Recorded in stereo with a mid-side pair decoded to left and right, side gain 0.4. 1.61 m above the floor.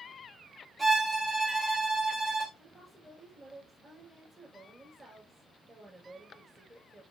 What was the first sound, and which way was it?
A violin, 35° right.